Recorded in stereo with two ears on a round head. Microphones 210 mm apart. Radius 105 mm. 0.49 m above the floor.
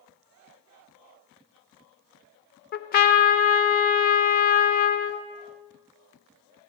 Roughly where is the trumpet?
Left.